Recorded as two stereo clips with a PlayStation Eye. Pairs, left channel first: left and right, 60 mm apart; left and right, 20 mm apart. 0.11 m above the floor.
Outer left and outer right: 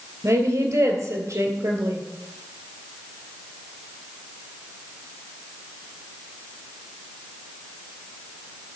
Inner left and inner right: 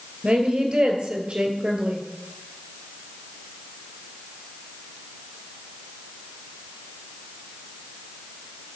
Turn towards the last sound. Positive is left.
turn(degrees=-55)  # may be behind; listen again after turning